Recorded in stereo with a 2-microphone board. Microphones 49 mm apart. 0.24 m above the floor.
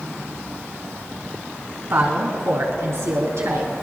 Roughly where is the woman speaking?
Right.